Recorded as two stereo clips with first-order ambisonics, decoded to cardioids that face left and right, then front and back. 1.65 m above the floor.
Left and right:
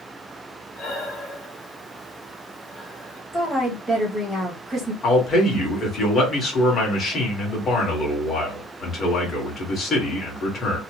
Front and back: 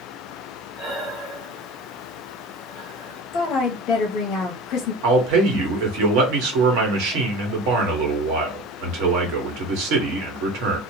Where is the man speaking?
155° left, 1.4 m.